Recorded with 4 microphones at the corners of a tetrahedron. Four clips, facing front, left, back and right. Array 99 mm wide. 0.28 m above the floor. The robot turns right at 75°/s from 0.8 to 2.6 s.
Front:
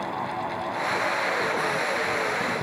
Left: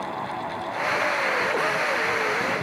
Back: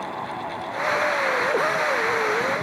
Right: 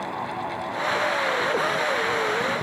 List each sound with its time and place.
Only background noise.